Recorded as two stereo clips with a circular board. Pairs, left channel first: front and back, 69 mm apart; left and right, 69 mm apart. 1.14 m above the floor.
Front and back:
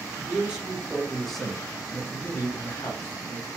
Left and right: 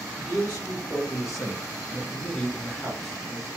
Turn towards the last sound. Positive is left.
turn(degrees=-10)